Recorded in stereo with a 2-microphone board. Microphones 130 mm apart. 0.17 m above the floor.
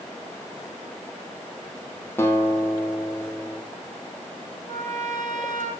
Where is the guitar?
20° left (ahead or behind), 2 m.